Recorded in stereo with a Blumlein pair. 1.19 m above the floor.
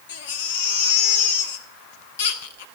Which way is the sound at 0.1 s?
60° left.